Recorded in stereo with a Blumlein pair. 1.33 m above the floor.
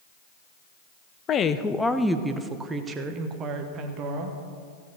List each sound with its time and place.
1.3 s a woman speaking: 30° left, 0.7 m; by 4.4 s 35° right, 1.9 m